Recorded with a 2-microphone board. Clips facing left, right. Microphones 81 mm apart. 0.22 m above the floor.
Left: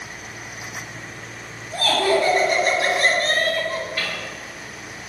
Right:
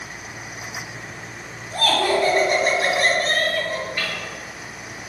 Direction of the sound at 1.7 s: 45° right (ahead or behind).